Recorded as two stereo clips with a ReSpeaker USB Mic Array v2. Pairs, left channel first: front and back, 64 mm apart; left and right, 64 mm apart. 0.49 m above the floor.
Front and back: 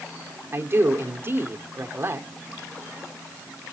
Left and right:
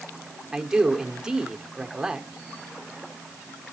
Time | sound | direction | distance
0.5 | a man speaking | 165° right | 1.5 m